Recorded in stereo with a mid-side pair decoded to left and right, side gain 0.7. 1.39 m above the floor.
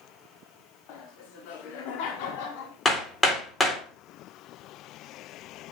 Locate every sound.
0.9 s laughter: 65° left, 3.5 m
2.9 s hammering: 15° left, 4 m